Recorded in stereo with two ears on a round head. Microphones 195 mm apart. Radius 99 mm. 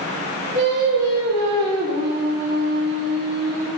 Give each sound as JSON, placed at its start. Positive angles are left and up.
{"t": 0.5, "sound": "singing", "side_deg": -45, "distance_m": 3.5}